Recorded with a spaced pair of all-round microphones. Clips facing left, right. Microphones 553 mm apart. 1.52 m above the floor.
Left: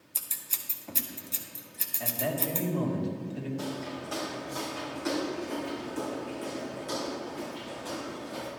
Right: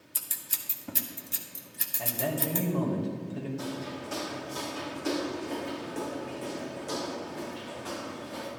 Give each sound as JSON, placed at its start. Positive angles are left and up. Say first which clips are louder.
{"t": 0.1, "sound": "scissors", "louder": "even", "side_deg": -40, "distance_m": 1.1}
{"t": 2.0, "sound": "a man speaking", "louder": "right 1 dB", "side_deg": -70, "distance_m": 2.0}
{"t": 3.6, "sound": "footsteps", "louder": "even", "side_deg": -40, "distance_m": 5.0}